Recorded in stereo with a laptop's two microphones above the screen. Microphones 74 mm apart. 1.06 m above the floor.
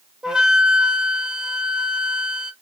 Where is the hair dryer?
I don't hear a hair dryer.